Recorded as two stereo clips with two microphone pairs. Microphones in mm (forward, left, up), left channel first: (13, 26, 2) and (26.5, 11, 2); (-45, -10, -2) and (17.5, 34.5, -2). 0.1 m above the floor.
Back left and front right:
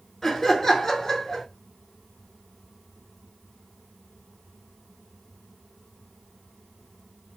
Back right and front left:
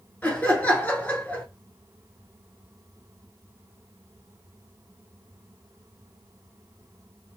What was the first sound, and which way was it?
Laughter, 175° left.